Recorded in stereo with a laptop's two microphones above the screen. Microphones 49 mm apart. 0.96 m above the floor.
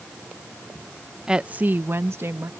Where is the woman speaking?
15° right (ahead or behind); by 2.5 s 65° right (ahead or behind).